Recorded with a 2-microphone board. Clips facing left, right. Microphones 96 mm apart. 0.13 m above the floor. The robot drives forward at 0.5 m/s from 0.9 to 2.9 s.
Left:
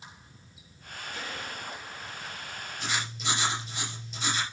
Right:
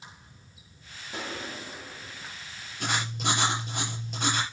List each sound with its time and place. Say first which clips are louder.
1.1 s a gunshot: right 4 dB; 80° right, 4.5 m; by 2.3 s 75° right (ahead or behind), 4.5 m
2.8 s writing: right 4 dB; 55° right (ahead or behind), 3.5 m